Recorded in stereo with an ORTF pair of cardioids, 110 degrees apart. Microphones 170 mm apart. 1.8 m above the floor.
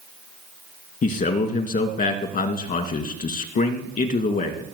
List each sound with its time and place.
1.0 s a man speaking: 60° left, 2.5 m